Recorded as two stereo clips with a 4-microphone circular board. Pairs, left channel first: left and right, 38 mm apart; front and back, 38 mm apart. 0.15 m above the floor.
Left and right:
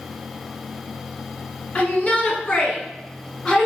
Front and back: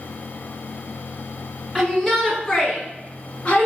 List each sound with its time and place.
1.8 s a shout: 95° left, 1.6 m; by 3.7 s 5° left, 1.4 m